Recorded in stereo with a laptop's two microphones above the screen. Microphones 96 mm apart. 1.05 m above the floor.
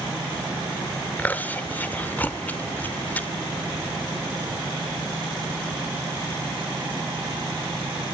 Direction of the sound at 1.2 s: 15° left (ahead or behind).